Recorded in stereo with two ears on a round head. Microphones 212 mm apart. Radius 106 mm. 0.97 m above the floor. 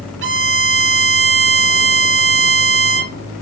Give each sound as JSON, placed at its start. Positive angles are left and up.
{"t": 0.2, "sound": "a violin", "side_deg": -50, "distance_m": 0.6}